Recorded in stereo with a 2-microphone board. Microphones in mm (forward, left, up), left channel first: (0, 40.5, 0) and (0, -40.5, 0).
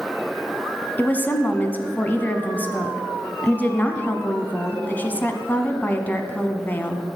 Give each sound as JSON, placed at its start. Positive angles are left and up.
{"t": 1.0, "sound": "a woman speaking", "side_deg": 20, "distance_m": 1.0}